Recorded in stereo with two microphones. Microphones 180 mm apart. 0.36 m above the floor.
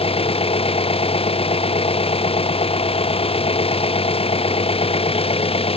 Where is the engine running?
30° left (ahead or behind).